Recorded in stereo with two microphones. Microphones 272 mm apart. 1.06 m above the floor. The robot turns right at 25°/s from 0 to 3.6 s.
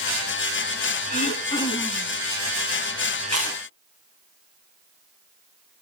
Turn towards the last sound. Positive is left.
turn(degrees=-55)  # may be behind; listen again after turning